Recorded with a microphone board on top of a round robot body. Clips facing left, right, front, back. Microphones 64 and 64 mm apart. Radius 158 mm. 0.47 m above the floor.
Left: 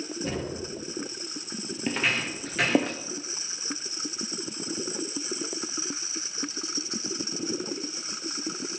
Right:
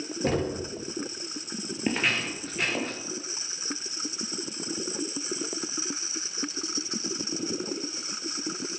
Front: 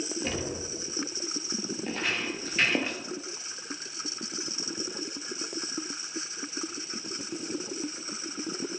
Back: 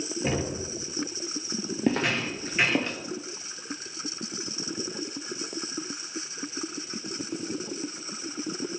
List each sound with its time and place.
0.2 s knocking: 110° right, 1.8 m
1.9 s footsteps: 170° right, 0.7 m; by 3.0 s 75° left, 0.7 m